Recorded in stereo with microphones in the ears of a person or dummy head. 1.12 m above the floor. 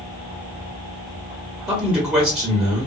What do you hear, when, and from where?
1.7 s a man speaking: 5° right (ahead or behind), 1.3 m